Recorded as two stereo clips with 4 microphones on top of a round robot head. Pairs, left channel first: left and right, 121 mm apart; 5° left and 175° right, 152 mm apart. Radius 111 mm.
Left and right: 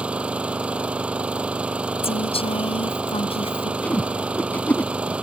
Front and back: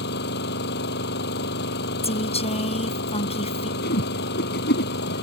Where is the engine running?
10° right.